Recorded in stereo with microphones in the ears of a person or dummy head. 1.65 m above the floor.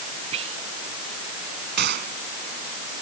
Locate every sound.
0.3 s whispering: 40° right (ahead or behind)
1.8 s a gunshot: 50° right (ahead or behind)